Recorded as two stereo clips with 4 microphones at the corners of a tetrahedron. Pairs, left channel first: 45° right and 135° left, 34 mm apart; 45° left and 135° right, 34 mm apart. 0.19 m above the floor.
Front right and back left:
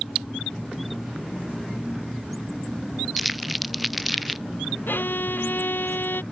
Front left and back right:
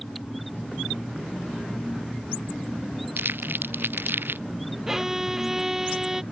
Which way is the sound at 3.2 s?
135° right.